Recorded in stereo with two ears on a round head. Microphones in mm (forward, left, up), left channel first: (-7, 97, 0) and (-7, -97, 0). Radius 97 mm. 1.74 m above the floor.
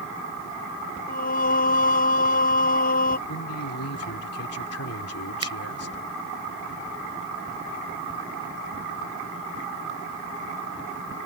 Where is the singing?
40° left (ahead or behind).